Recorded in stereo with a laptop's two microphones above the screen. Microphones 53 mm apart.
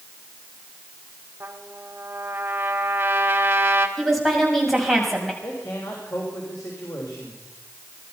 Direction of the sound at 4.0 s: Centre (ahead or behind).